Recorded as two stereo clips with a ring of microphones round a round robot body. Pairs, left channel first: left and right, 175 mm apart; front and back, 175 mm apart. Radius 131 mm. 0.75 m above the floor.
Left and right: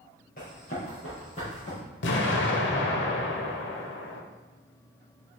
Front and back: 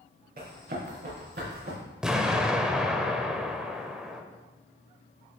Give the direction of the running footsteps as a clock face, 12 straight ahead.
7 o'clock.